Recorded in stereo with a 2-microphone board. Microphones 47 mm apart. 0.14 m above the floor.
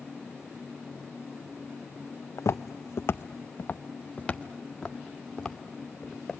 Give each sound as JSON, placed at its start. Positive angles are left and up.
{"t": 2.4, "sound": "footsteps", "side_deg": 80, "distance_m": 0.6}